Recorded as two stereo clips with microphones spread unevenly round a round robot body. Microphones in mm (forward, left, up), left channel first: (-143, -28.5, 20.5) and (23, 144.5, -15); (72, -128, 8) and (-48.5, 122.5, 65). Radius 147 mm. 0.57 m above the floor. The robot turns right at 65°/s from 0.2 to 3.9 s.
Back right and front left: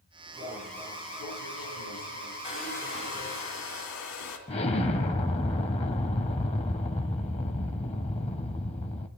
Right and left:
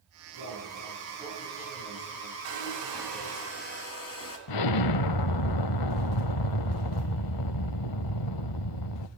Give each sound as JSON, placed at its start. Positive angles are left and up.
{"t": 0.3, "sound": "an alarm", "azimuth_deg": 115, "distance_m": 7.5}
{"t": 2.4, "sound": "a hair dryer", "azimuth_deg": 160, "distance_m": 2.5}
{"t": 4.5, "sound": "an explosion", "azimuth_deg": -75, "distance_m": 0.5}